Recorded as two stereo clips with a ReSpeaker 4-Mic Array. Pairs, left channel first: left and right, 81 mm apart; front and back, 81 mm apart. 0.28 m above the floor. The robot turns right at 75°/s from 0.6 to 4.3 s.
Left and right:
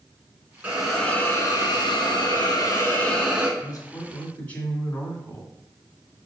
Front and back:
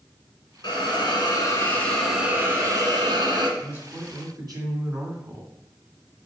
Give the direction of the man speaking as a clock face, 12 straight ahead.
8 o'clock.